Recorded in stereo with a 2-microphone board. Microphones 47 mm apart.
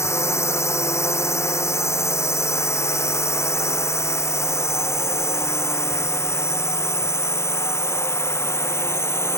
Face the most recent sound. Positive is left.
turn(degrees=70)  # may be behind; listen again after turning